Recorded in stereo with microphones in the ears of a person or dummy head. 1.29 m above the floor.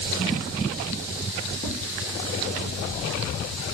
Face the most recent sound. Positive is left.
turn(degrees=25)  # may be behind; listen again after turning